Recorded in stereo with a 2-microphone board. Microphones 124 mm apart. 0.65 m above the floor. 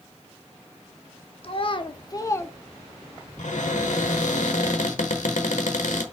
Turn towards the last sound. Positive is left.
turn(degrees=80)